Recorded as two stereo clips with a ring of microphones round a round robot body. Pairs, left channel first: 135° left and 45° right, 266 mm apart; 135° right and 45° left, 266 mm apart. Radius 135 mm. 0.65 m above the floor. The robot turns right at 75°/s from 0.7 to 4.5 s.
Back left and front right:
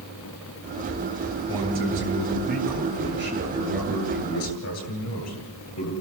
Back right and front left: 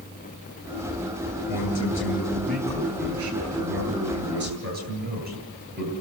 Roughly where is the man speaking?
Behind right.